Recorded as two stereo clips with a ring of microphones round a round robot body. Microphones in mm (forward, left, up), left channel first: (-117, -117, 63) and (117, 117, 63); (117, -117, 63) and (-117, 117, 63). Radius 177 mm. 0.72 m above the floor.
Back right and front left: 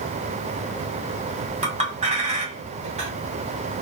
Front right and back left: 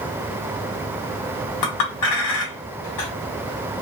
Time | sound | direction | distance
1.6 | a clink | 25° right | 1.1 m